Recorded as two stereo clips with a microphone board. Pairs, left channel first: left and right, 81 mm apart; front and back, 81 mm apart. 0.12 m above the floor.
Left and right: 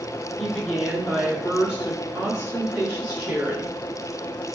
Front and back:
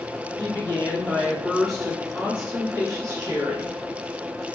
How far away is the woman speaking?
About 1.4 m.